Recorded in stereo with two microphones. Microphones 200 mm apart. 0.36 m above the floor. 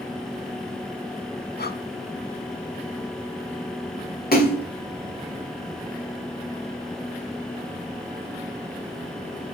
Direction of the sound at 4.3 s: 50° left (ahead or behind).